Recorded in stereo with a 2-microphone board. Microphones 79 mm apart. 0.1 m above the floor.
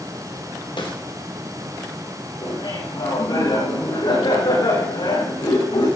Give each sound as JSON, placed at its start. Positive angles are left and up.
{"t": 0.8, "sound": "a snare drum", "side_deg": 75, "distance_m": 3.0}
{"t": 2.4, "sound": "laughter", "side_deg": 65, "distance_m": 7.5}